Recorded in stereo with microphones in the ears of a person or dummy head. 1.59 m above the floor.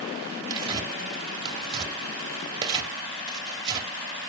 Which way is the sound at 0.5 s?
30° right (ahead or behind).